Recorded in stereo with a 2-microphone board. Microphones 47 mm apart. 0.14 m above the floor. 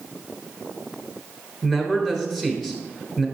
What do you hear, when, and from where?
1.6 s a man speaking: 15° left (ahead or behind), 1.2 m